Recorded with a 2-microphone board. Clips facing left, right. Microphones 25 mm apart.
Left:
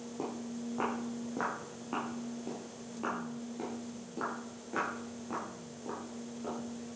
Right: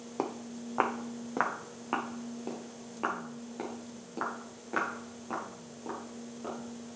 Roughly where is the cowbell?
No cowbell in this recording.